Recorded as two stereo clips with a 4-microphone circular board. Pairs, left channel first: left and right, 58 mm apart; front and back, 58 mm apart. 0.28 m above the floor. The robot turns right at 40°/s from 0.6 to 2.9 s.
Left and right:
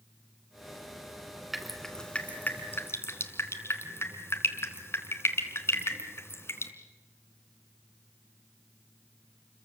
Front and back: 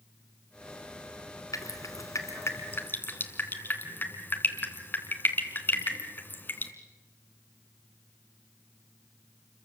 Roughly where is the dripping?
Ahead.